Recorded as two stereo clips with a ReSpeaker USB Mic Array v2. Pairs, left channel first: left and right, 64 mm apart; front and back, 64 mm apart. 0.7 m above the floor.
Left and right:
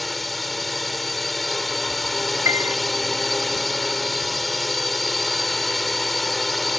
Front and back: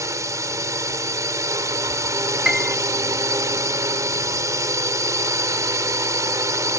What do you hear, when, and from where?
0.0 s a drone: straight behind
2.5 s a piano: 100° right